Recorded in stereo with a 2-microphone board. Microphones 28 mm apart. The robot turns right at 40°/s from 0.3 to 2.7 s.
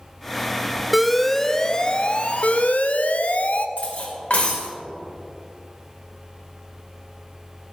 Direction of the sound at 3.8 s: 65° left (ahead or behind).